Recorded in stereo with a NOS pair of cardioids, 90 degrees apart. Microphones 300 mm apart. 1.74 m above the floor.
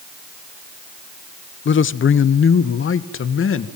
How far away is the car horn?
No car horn in this recording.